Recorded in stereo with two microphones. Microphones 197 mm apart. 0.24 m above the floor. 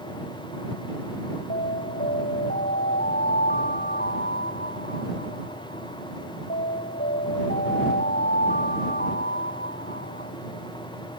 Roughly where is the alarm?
Left.